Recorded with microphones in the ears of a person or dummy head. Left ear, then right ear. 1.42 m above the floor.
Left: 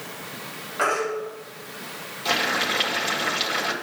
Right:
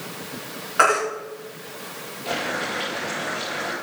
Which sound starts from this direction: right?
A baby crying, at 0.8 s.